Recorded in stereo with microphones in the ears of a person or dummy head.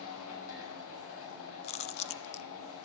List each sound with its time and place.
0.0 s a machine running: 80° left, 6 m
1.6 s chewing: 30° left (ahead or behind), 0.6 m